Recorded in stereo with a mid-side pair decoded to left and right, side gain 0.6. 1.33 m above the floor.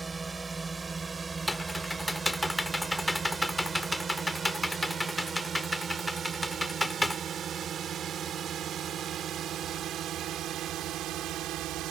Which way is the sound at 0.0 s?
20° right.